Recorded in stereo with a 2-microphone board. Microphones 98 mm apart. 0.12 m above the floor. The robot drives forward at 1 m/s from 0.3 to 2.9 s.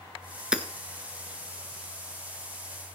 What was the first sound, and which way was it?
Hammering, 10° right (ahead or behind).